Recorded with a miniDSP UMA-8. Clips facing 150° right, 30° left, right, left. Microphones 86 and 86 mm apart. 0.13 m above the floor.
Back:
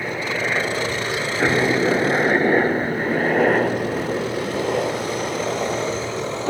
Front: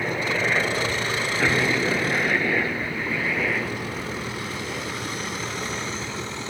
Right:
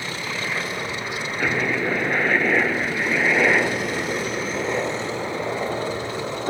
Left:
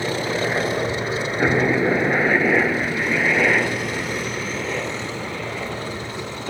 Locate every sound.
0.0 s a helicopter: 125° left; by 6.5 s 150° right